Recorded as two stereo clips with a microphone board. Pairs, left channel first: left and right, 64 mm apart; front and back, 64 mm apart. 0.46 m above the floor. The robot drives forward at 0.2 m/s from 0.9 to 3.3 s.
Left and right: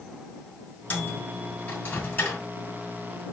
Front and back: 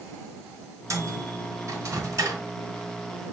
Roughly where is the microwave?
Behind left.